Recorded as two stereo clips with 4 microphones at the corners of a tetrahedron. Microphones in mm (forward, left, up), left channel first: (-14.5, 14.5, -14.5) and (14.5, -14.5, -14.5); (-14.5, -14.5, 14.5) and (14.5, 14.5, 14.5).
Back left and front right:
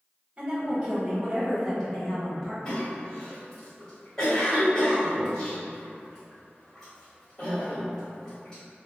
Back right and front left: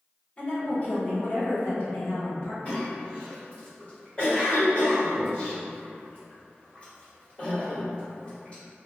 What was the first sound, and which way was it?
A woman speaking, 85° right.